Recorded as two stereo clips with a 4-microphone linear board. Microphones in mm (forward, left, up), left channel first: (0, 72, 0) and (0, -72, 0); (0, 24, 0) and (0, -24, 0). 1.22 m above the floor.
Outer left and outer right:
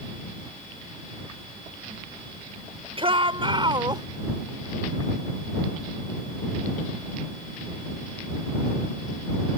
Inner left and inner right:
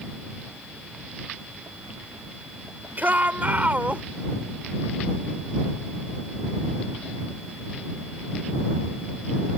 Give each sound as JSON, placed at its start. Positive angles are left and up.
{"t": 3.0, "sound": "a shout", "side_deg": -40}